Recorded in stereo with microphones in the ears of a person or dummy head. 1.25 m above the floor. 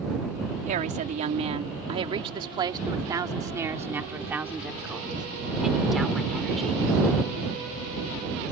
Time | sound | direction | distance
0.7 | a woman speaking | 40° right (ahead or behind) | ?